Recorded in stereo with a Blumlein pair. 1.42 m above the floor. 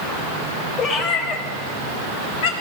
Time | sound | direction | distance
0.8 | a cat meowing | 30° left | 4 m